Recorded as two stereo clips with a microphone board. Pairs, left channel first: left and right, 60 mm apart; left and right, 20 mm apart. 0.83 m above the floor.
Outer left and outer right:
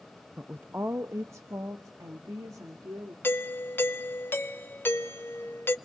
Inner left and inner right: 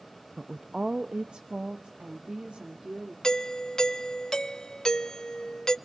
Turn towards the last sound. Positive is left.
turn(degrees=35)  # may be behind; listen again after turning